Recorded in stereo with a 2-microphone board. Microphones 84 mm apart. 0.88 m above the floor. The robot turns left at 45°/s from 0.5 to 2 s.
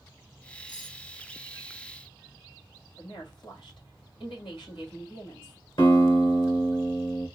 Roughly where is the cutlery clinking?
Left.